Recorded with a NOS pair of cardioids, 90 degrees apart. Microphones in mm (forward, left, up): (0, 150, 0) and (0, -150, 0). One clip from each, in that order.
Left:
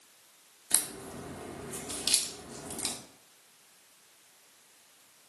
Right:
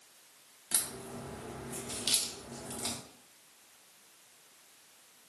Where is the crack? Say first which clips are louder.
Left 3 dB; 20° left, 0.7 m.